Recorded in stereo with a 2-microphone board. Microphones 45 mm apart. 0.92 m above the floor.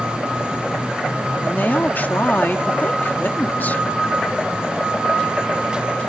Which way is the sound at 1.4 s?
45° left (ahead or behind).